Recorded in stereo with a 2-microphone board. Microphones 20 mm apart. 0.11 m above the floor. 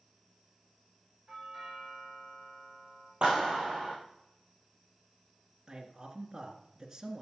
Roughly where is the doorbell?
Centre.